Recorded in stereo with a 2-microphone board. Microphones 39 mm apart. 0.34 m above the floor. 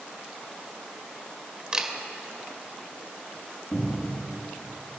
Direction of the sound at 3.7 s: 45° left (ahead or behind).